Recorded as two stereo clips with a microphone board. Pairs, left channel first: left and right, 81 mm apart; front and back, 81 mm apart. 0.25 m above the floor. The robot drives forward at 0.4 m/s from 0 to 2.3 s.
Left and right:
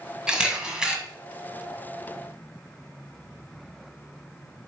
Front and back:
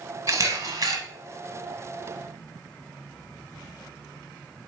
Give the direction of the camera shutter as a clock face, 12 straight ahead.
6 o'clock.